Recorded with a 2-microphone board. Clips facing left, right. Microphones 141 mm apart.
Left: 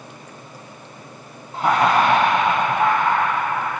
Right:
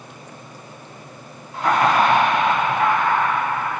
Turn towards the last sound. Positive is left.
turn(degrees=30)  # may be behind; listen again after turning